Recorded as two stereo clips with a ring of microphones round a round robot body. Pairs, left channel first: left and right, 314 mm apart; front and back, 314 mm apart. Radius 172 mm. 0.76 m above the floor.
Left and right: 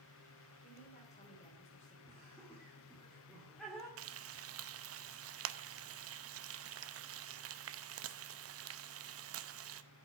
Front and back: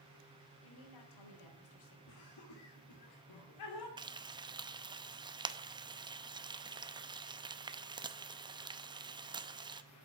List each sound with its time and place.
0.6 s a woman speaking: 20° left, 3.5 m
2.1 s laughter: straight ahead, 2.5 m
4.0 s frying: 110° right, 0.8 m